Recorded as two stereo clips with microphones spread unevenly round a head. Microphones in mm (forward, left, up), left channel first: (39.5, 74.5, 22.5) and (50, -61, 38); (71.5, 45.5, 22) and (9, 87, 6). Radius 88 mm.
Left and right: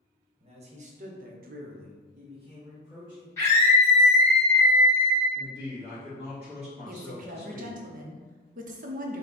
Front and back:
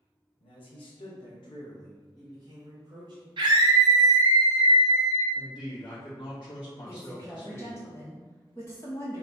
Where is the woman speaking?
105° right, 0.7 m.